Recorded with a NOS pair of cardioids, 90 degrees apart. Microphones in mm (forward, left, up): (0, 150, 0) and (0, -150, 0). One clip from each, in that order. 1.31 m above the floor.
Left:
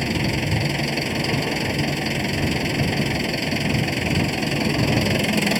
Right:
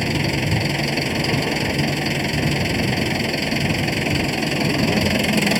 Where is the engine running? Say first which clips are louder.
Right 2 dB; 20° right.